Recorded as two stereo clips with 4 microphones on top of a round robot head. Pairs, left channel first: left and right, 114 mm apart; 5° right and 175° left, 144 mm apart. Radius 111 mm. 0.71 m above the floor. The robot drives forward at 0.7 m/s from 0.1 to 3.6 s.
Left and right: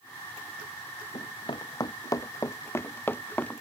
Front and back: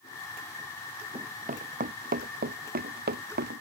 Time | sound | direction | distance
1.1 | running footsteps | 135° left | ?